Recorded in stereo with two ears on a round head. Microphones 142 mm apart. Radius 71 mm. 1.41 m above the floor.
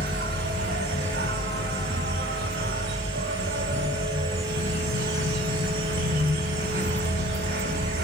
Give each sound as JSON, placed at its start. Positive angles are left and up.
{"t": 0.0, "sound": "an insect", "side_deg": -65, "distance_m": 7.0}